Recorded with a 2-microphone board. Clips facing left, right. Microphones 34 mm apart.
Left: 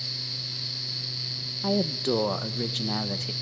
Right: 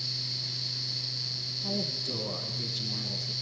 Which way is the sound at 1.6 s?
60° left (ahead or behind).